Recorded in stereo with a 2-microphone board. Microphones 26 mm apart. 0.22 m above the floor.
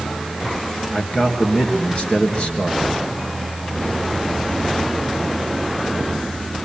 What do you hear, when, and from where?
0.9 s a man speaking: 45° left (ahead or behind), 4 m